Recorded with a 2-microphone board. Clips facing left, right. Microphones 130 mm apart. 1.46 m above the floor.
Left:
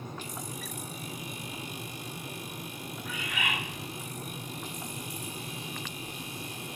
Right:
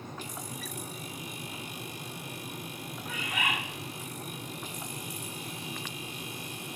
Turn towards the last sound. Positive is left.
turn(degrees=-45)  # may be behind; listen again after turning